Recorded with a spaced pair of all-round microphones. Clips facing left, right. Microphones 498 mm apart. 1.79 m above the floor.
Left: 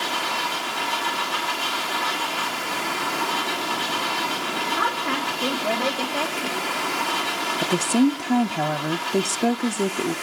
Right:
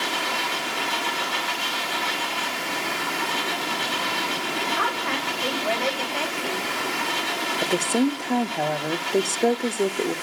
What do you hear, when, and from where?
0.0 s a machine running: 75° left (ahead or behind), 5.5 m
4.8 s a woman speaking: 60° left (ahead or behind), 3 m
7.6 s a woman speaking: 30° left (ahead or behind), 0.5 m